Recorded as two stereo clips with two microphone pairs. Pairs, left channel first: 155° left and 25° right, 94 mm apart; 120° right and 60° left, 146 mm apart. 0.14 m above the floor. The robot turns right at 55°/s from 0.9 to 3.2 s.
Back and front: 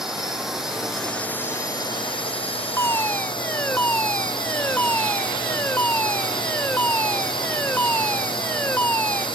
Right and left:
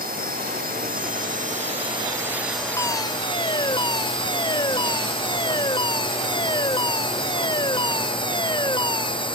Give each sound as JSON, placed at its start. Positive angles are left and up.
{"t": 0.0, "sound": "a drone", "azimuth_deg": 60}
{"t": 2.8, "sound": "a fire alarm", "azimuth_deg": -170}